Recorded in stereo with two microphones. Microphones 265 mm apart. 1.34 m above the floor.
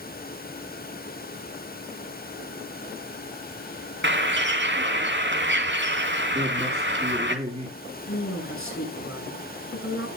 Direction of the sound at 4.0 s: 45° right (ahead or behind).